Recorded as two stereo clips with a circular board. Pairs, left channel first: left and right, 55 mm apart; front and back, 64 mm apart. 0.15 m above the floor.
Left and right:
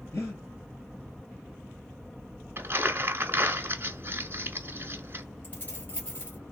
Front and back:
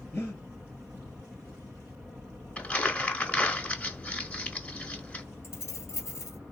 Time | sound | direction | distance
0.1 | breathing | 55° left | 1.8 m
2.6 | crumpling | 60° right | 0.9 m
5.4 | keys jangling | 40° left | 1.6 m